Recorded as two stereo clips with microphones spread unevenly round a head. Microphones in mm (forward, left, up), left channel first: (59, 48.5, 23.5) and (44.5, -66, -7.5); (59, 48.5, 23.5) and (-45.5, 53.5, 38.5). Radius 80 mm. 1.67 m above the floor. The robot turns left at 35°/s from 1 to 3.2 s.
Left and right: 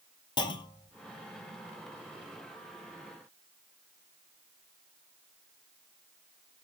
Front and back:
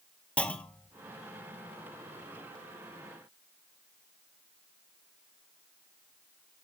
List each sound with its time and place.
0.4 s a clunk: 80° left, 1.0 m